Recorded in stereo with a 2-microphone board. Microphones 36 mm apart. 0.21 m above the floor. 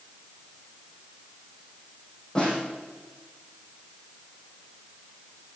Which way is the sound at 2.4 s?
20° left (ahead or behind).